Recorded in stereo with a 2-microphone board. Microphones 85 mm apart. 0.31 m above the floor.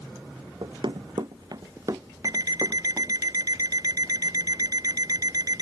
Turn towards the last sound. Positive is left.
turn(degrees=-45)  # may be behind; listen again after turning